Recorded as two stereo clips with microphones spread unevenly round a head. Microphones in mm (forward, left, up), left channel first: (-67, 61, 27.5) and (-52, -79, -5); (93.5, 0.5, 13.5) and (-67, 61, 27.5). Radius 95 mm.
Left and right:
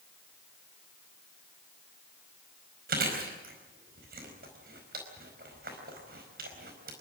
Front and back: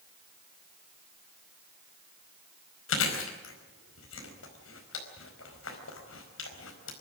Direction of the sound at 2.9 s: 40° right.